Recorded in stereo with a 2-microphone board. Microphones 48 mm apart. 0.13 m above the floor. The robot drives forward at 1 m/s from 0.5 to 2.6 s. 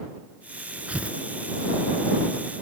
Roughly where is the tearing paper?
Right.